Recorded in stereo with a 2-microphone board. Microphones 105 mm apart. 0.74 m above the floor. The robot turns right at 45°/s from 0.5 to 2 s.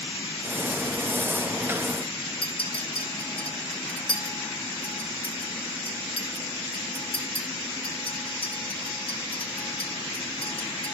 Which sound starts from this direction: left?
A clink, at 2.4 s.